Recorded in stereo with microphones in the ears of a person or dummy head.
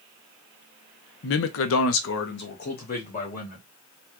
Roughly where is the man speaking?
Left.